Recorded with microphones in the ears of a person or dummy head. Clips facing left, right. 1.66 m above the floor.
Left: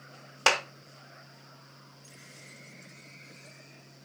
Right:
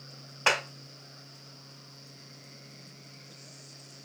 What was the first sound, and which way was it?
A clap, 60° left (ahead or behind).